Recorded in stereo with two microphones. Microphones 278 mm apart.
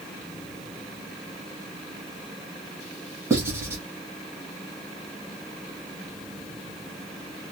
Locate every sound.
3.3 s writing: 10° right (ahead or behind), 1.6 m